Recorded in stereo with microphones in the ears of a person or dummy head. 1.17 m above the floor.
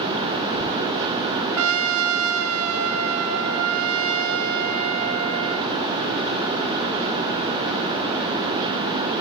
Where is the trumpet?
80° right, 0.7 m.